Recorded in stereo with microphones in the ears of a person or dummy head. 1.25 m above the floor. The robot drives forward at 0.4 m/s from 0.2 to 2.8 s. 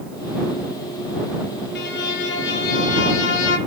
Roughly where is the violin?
Left.